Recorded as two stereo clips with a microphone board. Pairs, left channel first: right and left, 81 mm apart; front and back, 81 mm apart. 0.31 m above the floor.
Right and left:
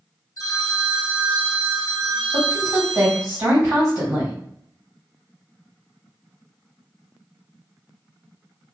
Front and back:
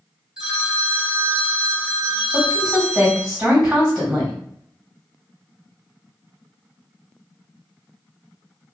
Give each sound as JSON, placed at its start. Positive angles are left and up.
{"t": 0.4, "sound": "a phone ringing", "azimuth_deg": -105, "distance_m": 0.8}
{"t": 2.3, "sound": "a woman speaking", "azimuth_deg": 100, "distance_m": 1.8}